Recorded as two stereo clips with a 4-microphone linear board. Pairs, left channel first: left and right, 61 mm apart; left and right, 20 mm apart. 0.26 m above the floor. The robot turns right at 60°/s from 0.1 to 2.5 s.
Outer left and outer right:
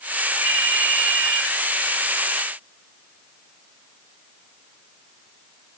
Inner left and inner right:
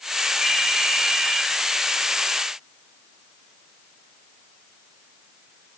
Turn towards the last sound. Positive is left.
turn(degrees=90)